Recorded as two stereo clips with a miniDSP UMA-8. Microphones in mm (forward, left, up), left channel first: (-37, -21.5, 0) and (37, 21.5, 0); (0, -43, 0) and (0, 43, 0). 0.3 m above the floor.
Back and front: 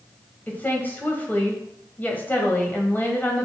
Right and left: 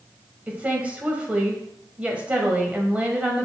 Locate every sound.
0.5 s a woman speaking: 155° left, 1.6 m